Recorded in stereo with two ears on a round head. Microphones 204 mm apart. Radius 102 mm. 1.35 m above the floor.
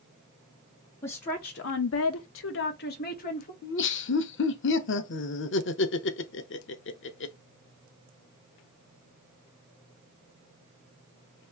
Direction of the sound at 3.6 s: 55° left (ahead or behind).